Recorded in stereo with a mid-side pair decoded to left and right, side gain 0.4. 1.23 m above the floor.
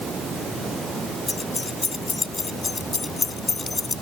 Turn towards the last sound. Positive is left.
turn(degrees=30)